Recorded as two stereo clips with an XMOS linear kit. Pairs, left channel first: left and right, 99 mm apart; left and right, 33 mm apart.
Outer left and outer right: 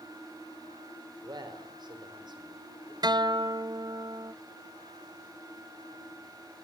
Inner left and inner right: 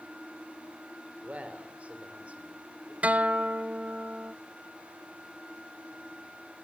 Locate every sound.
1.2 s a man speaking: 50° right (ahead or behind), 3.5 m
3.0 s a guitar: 45° right (ahead or behind), 0.5 m